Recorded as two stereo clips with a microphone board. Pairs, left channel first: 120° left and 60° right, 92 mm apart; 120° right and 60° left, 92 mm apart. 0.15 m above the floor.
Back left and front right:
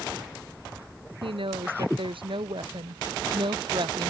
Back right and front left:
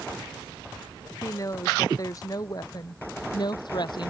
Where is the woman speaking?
65° right; by 4.1 s 90° right.